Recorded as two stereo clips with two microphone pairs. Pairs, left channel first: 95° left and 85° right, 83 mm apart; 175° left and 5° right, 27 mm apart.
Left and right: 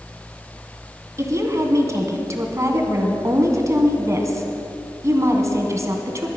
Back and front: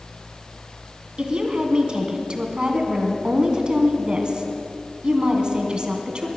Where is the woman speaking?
45° right, 2 m.